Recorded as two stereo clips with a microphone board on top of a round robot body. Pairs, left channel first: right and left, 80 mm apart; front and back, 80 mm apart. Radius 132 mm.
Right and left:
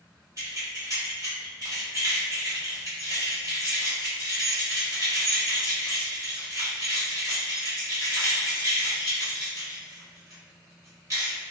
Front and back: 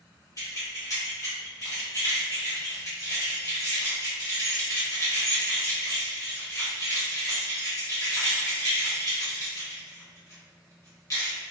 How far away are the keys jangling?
About 1.5 m.